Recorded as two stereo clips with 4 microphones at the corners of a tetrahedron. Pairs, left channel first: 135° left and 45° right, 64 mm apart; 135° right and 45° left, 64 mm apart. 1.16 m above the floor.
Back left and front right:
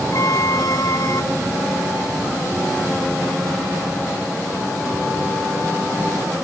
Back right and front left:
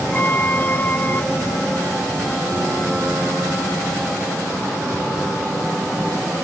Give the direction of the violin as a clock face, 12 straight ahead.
7 o'clock.